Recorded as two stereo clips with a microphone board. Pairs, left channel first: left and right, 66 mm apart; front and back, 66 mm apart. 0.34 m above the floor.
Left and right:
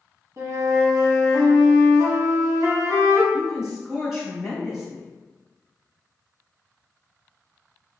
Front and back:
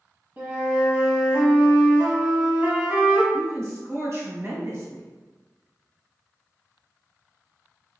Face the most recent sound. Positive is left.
turn(degrees=-170)